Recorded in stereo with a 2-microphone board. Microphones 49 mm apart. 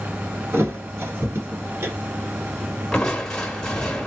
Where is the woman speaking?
I don't hear a woman speaking.